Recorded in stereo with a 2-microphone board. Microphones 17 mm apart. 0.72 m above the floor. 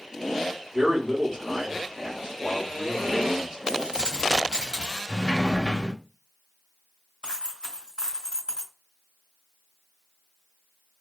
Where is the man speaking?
60° right (ahead or behind), 1.5 m.